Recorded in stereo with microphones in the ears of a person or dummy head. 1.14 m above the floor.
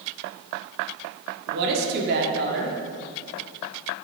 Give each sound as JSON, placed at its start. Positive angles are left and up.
{"t": 1.5, "sound": "a woman speaking", "side_deg": -60, "distance_m": 2.5}